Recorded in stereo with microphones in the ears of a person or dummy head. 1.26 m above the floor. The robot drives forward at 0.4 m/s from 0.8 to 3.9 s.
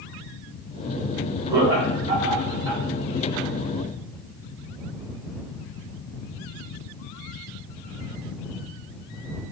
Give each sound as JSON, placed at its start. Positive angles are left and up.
{"t": 1.5, "sound": "laughter", "side_deg": -10, "distance_m": 1.2}